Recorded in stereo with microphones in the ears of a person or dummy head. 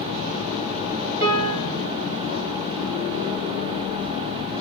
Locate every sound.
1.2 s a piano: 55° right (ahead or behind), 1.1 m